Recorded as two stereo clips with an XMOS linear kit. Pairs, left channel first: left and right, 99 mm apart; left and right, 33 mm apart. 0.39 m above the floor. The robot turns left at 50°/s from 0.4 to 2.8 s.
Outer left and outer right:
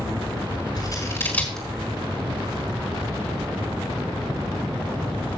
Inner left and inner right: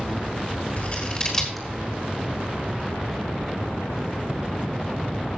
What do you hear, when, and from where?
0.8 s scissors: 45° left (ahead or behind), 3.5 m; by 1.7 s 5° left (ahead or behind), 3.5 m